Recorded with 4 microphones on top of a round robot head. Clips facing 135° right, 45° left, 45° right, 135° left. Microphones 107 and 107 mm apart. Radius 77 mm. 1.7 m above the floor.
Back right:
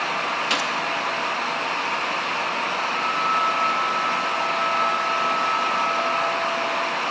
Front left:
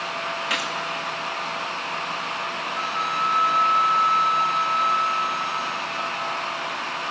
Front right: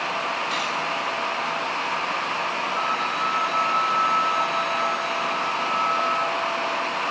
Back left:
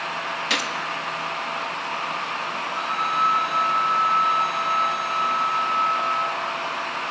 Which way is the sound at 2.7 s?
45° left.